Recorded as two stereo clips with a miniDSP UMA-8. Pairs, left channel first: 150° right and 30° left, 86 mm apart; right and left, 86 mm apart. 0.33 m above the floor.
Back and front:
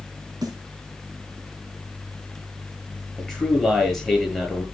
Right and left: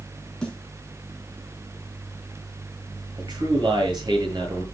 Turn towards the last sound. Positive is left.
turn(degrees=125)